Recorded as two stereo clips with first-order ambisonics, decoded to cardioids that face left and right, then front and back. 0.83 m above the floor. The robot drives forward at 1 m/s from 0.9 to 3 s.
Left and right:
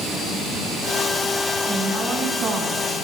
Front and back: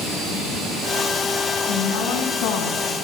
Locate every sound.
1.7 s a woman speaking: 25° right, 7 m; by 2.9 s 30° right, 6 m